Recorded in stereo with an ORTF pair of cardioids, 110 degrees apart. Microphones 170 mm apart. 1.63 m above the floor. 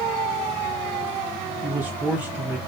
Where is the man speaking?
10° right, 2 m.